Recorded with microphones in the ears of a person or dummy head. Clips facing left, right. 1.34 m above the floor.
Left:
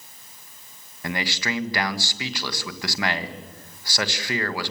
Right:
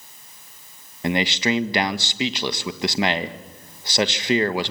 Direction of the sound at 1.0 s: 25° right (ahead or behind).